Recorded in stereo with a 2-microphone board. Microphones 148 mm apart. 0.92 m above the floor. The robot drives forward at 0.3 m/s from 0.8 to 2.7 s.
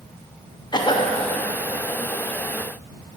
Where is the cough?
30° left (ahead or behind), 0.6 m; by 1.1 s 35° left (ahead or behind), 0.6 m.